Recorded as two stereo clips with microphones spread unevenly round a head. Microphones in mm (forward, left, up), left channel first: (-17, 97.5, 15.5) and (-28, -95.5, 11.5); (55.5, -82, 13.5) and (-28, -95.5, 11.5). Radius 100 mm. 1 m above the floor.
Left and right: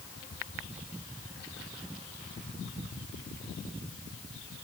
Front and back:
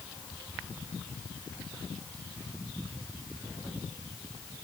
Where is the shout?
No shout in this recording.